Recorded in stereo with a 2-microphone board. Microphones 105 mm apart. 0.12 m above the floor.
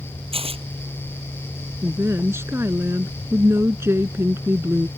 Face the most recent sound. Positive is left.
turn(degrees=-25)  # may be behind; listen again after turning